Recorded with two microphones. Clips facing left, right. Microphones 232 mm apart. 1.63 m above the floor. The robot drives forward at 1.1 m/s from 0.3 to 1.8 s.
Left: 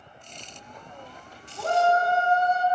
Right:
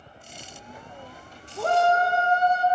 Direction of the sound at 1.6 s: 60° right (ahead or behind).